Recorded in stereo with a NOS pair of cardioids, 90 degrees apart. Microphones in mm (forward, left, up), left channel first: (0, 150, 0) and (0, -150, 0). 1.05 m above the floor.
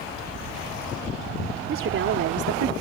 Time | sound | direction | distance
1.7 | a woman speaking | 45° right | ?